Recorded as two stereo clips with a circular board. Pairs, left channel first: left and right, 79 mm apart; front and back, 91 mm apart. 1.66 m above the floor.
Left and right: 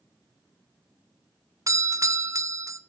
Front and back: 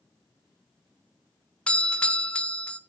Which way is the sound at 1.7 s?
70° right.